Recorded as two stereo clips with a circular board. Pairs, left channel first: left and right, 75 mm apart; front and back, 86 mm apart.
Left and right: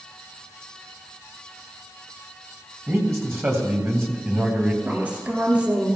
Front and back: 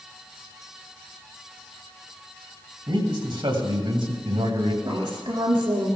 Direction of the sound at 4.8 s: 160° right.